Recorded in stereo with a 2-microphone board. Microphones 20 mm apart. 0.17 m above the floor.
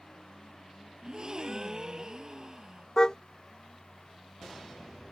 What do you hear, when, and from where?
1.0 s a gasp: 40° right (ahead or behind)
3.0 s a car horn: 30° left (ahead or behind)